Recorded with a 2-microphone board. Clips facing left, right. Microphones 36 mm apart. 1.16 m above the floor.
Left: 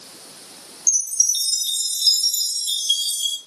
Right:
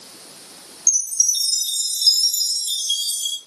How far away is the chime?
About 1.6 m.